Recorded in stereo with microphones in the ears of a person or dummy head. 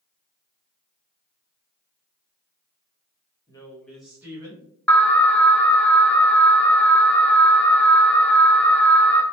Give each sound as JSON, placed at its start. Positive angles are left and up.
{"t": 3.5, "sound": "a woman speaking", "side_deg": 20, "distance_m": 1.2}
{"t": 4.9, "sound": "an alarm", "side_deg": 5, "distance_m": 0.7}